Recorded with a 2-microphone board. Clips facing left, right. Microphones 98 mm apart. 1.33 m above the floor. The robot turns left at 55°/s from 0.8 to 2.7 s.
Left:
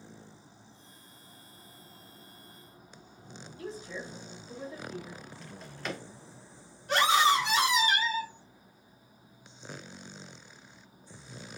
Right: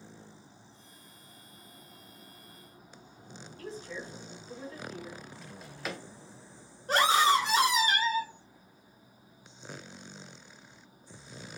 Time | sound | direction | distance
3.6 | a woman speaking | 20° left (ahead or behind) | 1.9 m
5.4 | a drawer | 5° right (ahead or behind) | 0.6 m
6.9 | a scream | 40° right (ahead or behind) | 1.4 m